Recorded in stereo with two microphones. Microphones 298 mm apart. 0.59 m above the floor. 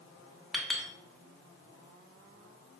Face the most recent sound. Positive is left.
turn(degrees=0)  # may be behind; listen again after turning